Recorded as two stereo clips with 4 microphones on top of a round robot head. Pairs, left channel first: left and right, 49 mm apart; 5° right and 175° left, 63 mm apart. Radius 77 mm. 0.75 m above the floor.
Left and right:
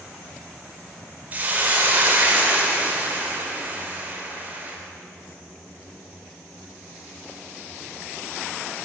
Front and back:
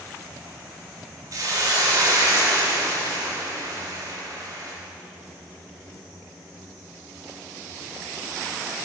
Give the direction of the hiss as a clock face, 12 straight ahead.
5 o'clock.